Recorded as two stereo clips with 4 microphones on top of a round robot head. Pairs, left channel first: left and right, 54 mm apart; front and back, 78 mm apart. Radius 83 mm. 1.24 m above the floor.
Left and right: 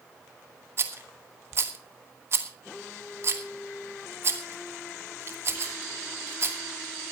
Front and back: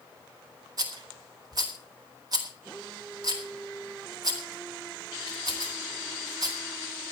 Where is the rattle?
135° right, 2 m.